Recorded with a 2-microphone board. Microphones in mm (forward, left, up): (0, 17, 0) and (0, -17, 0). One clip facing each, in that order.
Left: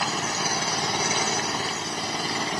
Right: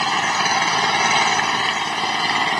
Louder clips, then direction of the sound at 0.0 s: Right 8 dB; 45° right (ahead or behind).